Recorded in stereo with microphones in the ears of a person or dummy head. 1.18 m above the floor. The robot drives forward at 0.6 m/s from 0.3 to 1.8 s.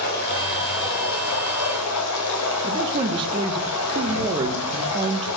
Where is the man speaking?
25° right (ahead or behind), 0.7 m.